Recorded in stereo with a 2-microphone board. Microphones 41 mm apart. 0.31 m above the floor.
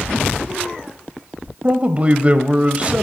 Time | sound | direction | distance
1.6 | a man speaking | 30° right (ahead or behind) | 1.3 m